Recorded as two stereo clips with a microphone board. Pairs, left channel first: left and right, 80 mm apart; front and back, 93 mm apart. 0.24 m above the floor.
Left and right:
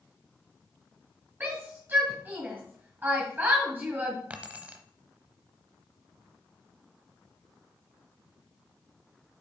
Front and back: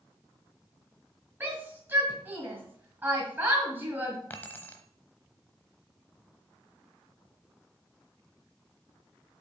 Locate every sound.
1.4 s a shout: 135° right, 1.7 m
4.3 s keys jangling: 40° right, 0.9 m